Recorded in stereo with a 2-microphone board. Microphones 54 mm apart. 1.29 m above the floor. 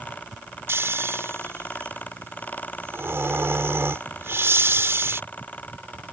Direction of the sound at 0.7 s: 50° right (ahead or behind).